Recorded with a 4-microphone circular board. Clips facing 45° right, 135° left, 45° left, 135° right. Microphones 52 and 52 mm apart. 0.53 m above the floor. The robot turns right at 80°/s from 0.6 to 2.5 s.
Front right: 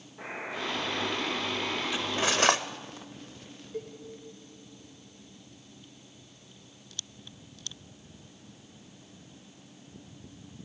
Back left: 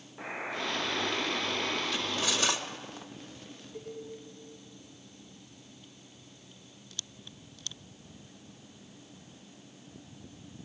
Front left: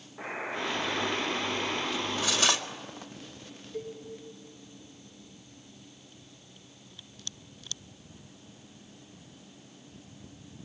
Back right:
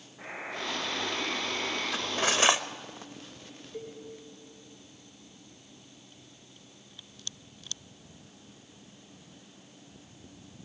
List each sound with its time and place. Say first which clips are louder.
0.2 s a buzzer: even, front left 3 dB; 80° left, 8.5 m; by 1.8 s 175° left, 8.5 m
1.9 s cutlery clinking: front right 3 dB, back right 2 dB; 120° right, 1.0 m; by 2.6 s 70° right, 1.0 m
3.7 s a cowbell: front right 3 dB, front left 3 dB; 65° right, 7 m